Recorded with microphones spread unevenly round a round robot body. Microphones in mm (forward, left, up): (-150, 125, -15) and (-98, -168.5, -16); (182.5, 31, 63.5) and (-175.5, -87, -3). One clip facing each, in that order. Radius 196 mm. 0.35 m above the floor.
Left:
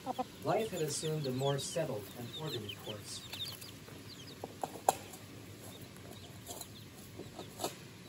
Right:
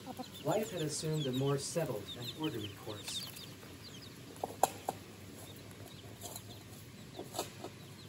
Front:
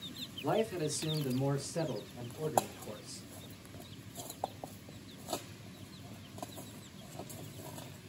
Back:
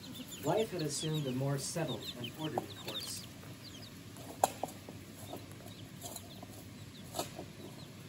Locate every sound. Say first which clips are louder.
0.4 s a man speaking: left 1 dB, front 1 dB; 55° left, 1.2 m; by 3.3 s 115° right, 1.8 m